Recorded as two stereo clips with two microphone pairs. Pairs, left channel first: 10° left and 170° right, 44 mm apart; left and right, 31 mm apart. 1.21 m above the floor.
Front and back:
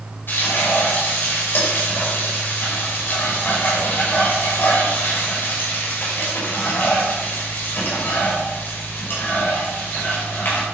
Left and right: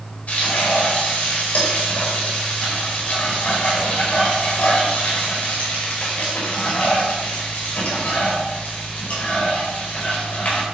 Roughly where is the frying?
Ahead left.